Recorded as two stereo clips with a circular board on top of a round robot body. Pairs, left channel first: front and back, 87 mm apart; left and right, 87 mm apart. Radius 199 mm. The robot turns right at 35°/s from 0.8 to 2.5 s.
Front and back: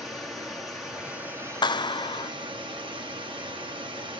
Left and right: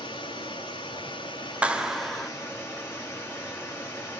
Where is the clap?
15° right, 0.9 m; by 2.3 s 5° left, 0.9 m.